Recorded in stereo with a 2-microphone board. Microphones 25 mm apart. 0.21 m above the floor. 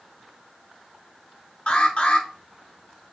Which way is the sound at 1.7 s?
50° left (ahead or behind).